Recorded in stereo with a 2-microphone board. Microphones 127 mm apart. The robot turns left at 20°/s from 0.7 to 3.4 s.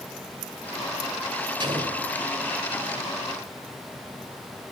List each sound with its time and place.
1.6 s an explosion: 40° right (ahead or behind), 2 m; by 2.1 s 30° right (ahead or behind), 2 m